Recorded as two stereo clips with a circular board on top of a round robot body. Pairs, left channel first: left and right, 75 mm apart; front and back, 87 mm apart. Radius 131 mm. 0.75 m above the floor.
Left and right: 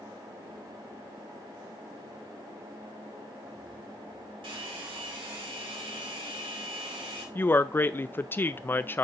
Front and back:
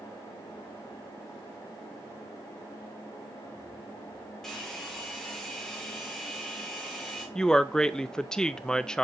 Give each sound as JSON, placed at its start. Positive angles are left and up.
{"t": 4.4, "sound": "a hair dryer", "azimuth_deg": -85, "distance_m": 3.0}
{"t": 7.3, "sound": "a woman speaking", "azimuth_deg": 75, "distance_m": 0.6}